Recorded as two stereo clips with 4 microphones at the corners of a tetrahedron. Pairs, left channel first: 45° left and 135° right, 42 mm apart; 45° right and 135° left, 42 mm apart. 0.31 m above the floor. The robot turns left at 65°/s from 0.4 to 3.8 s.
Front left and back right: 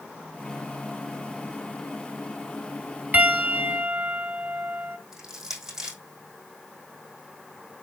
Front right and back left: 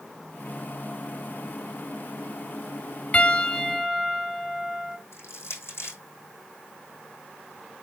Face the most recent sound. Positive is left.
turn(degrees=-60)